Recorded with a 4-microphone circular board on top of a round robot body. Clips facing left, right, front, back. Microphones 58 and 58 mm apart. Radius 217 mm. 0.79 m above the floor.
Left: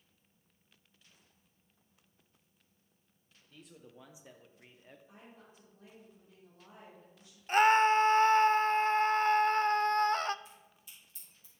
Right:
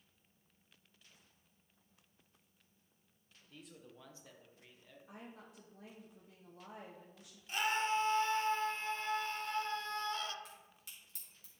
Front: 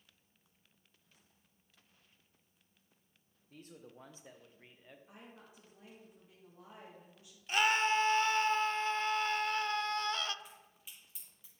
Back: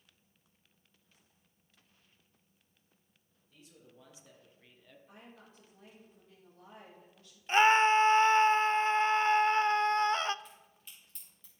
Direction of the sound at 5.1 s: 75° right.